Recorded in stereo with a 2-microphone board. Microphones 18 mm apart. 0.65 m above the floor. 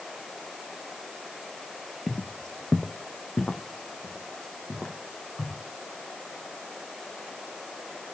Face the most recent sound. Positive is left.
turn(degrees=65)  # may be behind; listen again after turning